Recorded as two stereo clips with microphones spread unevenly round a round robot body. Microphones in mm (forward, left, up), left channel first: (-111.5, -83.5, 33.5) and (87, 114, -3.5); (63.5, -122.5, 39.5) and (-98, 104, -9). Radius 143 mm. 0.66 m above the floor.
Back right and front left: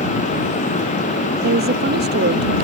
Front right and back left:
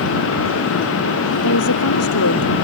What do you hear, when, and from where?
1.4 s a woman speaking: 15° right; by 2.5 s 10° right